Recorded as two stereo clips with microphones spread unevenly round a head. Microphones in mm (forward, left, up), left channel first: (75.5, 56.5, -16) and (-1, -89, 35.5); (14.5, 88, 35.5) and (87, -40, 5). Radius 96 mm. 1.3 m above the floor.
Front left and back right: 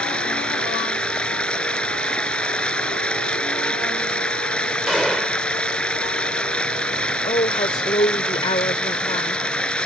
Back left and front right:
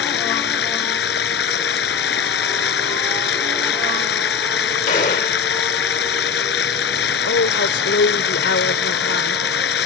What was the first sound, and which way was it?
Running water, 150° left.